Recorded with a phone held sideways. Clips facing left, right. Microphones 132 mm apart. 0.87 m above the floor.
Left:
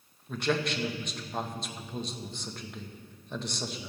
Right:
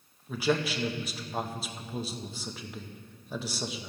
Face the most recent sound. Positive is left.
turn(degrees=-5)  # may be behind; listen again after turning